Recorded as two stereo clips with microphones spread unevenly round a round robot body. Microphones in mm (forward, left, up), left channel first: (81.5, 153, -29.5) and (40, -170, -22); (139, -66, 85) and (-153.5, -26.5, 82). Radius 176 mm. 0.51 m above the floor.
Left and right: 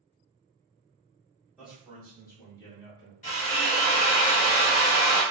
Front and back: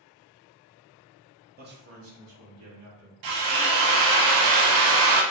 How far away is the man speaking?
About 0.7 m.